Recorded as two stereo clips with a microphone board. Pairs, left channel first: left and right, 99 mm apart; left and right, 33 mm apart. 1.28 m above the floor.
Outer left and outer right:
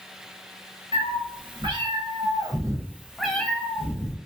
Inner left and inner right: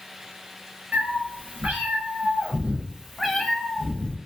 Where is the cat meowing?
55° right (ahead or behind), 1.3 m; by 4.2 s 30° left (ahead or behind), 0.8 m.